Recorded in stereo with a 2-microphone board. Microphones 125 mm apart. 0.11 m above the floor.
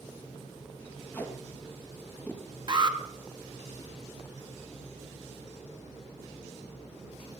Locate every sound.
1.1 s tape being pulled: 15° left (ahead or behind), 2.5 m
2.7 s an alarm: 35° right (ahead or behind), 1.4 m